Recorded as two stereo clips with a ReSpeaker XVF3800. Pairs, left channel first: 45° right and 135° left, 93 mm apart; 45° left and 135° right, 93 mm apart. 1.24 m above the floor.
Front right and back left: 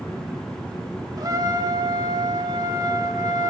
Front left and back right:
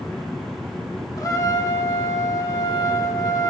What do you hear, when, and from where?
1.2 s a trumpet: 95° left, 0.9 m